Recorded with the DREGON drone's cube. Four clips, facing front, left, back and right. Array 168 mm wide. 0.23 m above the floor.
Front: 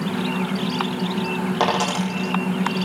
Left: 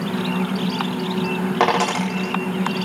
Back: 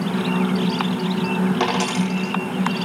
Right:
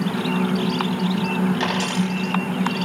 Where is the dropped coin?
65° left, 4.5 m.